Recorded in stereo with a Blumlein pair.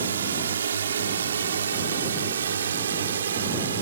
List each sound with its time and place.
0.0 s a drone: 70° right; by 3.8 s 65° right